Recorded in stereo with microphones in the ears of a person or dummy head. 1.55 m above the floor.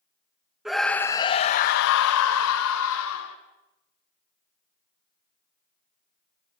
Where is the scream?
Centre (ahead or behind), 1.3 m; by 3.4 s 75° left (ahead or behind), 2.5 m.